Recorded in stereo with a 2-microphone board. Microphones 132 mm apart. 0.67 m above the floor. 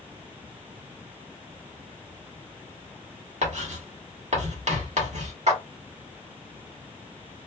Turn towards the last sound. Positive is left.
turn(degrees=-60)  # may be behind; listen again after turning